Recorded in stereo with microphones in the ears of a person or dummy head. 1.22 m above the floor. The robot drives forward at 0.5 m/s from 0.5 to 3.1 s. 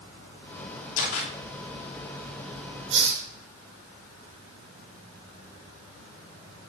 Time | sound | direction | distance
1.0 | a camera shutter | 80° left | 3 m
2.9 | a hiss | 65° right (ahead or behind) | 2.5 m